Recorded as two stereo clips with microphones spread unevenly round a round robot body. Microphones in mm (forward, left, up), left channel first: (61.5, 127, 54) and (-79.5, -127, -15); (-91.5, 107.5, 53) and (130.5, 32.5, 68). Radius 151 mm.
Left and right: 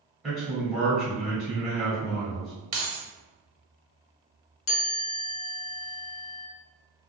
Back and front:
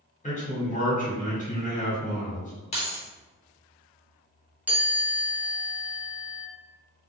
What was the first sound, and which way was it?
A man speaking, 175° left.